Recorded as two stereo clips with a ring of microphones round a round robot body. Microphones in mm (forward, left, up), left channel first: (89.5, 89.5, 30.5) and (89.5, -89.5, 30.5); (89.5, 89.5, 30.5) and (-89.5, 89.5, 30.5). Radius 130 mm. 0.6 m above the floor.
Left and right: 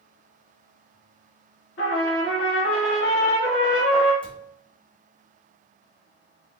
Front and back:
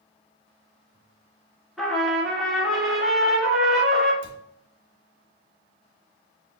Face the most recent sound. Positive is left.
turn(degrees=120)